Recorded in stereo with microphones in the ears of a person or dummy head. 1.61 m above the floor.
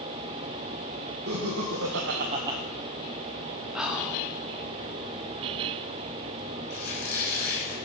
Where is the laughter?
70° right (ahead or behind), 1.7 m; by 2.6 s 10° right (ahead or behind), 0.8 m.